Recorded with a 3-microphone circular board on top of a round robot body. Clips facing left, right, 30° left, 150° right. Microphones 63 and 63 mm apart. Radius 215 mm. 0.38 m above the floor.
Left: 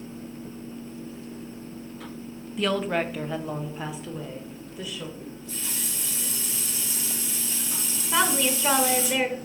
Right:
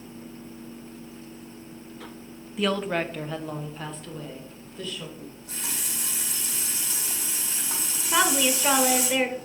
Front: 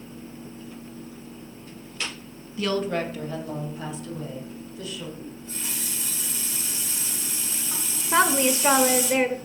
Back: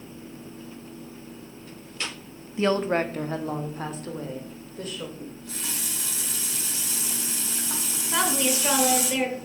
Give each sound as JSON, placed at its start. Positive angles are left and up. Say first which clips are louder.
{"t": 2.6, "sound": "a woman speaking", "louder": "left 1 dB, back 3 dB", "azimuth_deg": -175, "distance_m": 0.8}
{"t": 5.2, "sound": "a running tap", "louder": "left 2 dB, even", "azimuth_deg": -125, "distance_m": 2.5}
{"t": 8.1, "sound": "a woman speaking", "louder": "right 1 dB, front 5 dB", "azimuth_deg": -5, "distance_m": 0.9}